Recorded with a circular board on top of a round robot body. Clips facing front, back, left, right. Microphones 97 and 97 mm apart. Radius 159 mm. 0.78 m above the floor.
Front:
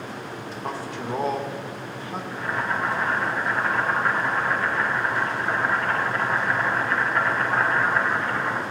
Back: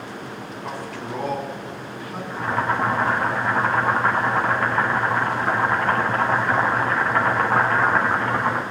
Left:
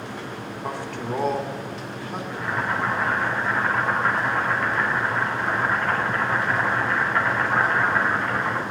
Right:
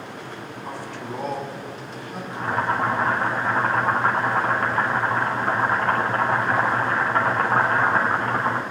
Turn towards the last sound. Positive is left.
turn(degrees=-140)